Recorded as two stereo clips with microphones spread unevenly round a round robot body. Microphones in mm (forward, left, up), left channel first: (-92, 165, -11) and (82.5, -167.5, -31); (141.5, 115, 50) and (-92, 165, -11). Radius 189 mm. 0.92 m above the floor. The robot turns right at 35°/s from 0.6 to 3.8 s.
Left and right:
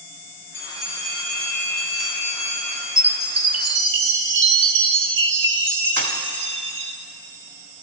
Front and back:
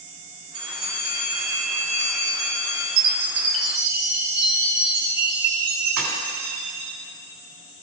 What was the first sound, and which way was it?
A bell, 160° right.